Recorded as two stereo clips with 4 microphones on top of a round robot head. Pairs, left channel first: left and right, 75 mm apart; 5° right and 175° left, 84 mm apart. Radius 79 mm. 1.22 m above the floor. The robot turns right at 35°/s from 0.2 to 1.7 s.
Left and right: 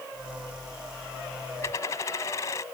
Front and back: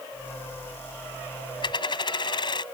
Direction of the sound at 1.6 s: 20° left.